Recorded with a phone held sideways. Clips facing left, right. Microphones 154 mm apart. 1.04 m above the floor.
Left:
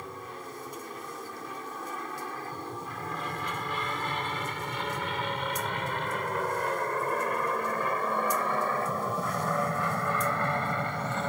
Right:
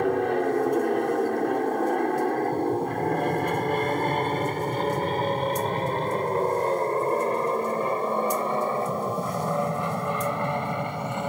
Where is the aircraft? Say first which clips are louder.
Right 19 dB; 65° right (ahead or behind); by 11.3 s 15° right (ahead or behind).